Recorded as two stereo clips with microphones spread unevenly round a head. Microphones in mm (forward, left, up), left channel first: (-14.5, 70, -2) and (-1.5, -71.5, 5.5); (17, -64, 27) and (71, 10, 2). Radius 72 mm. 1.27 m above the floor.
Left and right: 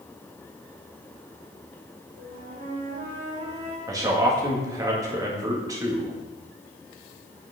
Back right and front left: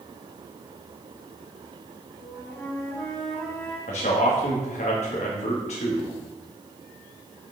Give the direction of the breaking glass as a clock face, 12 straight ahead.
No breaking glass in this recording.